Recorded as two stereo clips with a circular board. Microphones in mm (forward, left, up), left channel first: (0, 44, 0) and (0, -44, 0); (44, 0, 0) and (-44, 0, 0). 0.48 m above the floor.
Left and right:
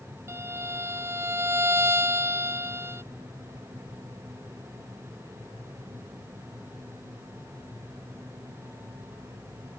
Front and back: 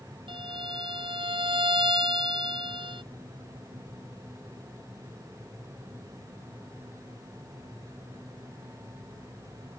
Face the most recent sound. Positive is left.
turn(degrees=-155)